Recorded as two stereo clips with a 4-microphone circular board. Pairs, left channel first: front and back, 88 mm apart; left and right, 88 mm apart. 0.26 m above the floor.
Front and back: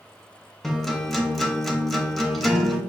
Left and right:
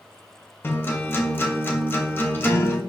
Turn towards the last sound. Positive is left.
turn(degrees=85)